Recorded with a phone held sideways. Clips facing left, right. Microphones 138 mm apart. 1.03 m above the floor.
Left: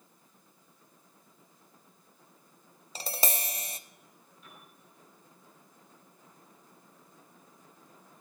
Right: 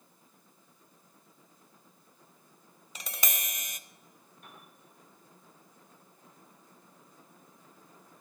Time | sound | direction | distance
3.0 | tapping | 30° left (ahead or behind) | 0.6 m
4.4 | a piano | 55° right (ahead or behind) | 5.5 m